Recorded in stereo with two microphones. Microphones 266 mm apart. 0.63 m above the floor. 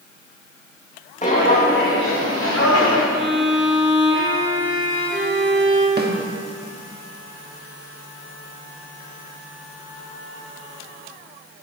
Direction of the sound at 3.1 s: 45° right (ahead or behind).